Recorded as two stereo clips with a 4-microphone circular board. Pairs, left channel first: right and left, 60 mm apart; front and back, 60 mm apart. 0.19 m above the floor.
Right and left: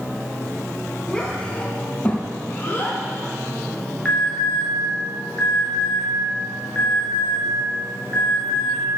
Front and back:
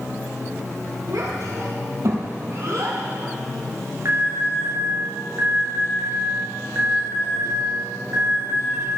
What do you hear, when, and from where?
1.1 s a child speaking: 165° right, 3.5 m; by 3.0 s 145° right, 5 m
4.0 s an alarm: 155° right, 4 m